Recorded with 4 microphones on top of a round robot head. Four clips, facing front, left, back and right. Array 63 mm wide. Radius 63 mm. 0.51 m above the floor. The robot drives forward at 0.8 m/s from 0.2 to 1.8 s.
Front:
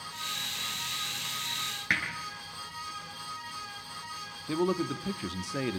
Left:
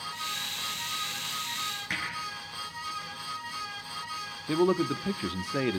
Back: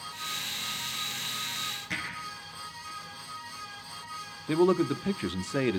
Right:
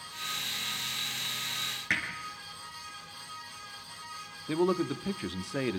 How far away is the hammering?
About 8 m.